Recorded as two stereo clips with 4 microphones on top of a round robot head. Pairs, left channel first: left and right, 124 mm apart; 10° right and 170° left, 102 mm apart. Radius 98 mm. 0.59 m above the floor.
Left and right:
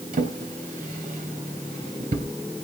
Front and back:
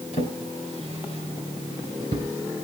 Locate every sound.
0.1 s a drawer: 50° right, 3 m